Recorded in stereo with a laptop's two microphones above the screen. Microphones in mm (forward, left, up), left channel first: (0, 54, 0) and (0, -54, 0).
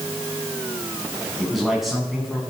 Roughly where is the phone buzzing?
I don't hear a phone buzzing.